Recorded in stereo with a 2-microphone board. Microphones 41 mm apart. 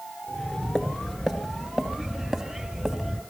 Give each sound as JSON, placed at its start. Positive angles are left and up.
{"t": 0.3, "sound": "footsteps", "side_deg": 15, "distance_m": 1.6}